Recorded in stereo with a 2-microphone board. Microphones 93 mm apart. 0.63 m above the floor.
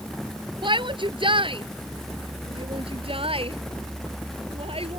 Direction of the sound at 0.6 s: 60° right (ahead or behind).